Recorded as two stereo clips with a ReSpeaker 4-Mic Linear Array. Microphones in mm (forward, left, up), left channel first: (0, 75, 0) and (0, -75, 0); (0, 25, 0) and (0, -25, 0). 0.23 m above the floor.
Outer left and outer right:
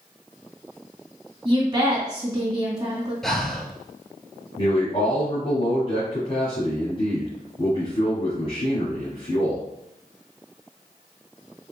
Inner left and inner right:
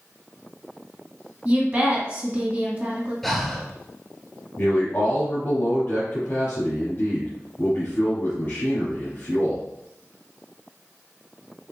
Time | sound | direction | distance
1.4 | a woman speaking | 30° right (ahead or behind) | 2 m
3.2 | breathing | centre (ahead or behind) | 0.6 m
4.6 | a man speaking | 40° left (ahead or behind) | 1.4 m